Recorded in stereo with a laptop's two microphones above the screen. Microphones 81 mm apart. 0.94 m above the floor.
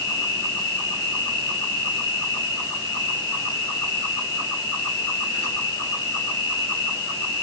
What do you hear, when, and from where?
0.0 s an insect: 40° left (ahead or behind), 3 m